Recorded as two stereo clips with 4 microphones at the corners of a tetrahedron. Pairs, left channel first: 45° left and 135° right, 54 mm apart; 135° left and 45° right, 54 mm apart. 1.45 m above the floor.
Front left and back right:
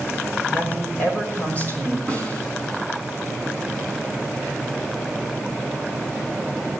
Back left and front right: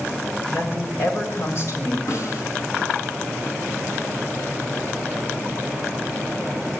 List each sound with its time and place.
0.5 s a woman speaking: 95° left, 5.5 m; by 2.0 s 105° left, 5.5 m
2.1 s a snare drum: 110° left, 5 m